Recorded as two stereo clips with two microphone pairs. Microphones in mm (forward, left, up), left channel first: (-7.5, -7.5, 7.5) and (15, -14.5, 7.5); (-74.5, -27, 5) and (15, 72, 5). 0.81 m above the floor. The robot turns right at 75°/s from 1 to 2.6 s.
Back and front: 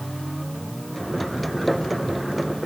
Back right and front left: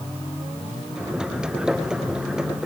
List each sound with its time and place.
Only background noise.